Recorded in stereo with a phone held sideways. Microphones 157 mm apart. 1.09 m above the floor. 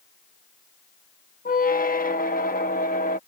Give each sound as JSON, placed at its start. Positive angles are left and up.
{"t": 1.4, "sound": "a squeak", "side_deg": 65}